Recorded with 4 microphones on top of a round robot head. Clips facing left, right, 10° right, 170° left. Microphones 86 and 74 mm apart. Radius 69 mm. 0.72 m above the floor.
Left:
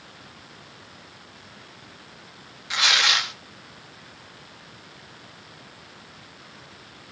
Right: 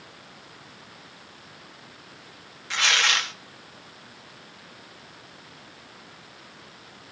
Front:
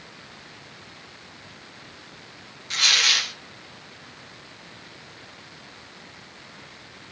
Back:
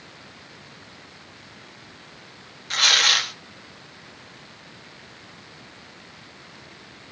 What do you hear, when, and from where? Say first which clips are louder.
2.7 s tearing paper: left 1 dB, back 3 dB; 165° left, 1.4 m